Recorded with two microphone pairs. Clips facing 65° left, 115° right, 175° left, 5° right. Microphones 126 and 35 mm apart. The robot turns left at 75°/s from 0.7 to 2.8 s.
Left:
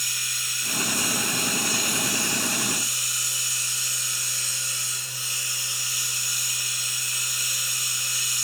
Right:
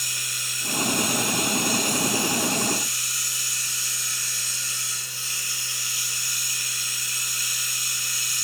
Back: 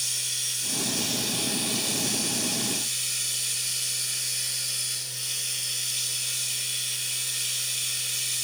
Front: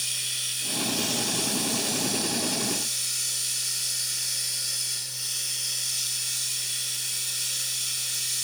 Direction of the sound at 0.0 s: 75° right.